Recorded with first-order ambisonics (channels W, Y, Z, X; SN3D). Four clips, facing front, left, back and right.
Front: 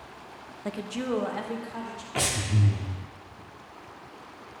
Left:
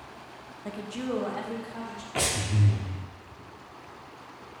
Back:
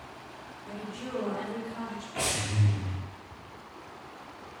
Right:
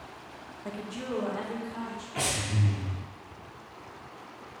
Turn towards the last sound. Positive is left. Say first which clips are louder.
# left 2 dB, front 3 dB
turn(degrees=40)